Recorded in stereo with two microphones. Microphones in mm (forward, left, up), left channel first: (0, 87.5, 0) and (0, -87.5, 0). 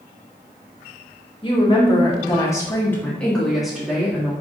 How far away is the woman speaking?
About 1.4 m.